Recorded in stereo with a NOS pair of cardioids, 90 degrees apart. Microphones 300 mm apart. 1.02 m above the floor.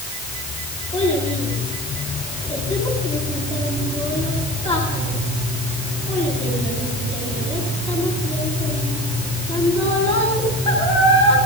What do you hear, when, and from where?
0.9 s a child speaking: 20° left, 8 m